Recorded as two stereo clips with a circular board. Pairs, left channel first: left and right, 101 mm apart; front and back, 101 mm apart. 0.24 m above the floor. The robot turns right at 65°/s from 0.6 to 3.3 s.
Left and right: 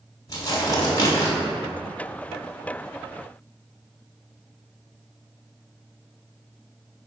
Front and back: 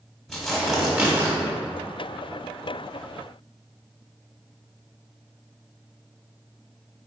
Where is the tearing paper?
90° left, 1.2 m; by 1.3 s 135° left, 1.2 m.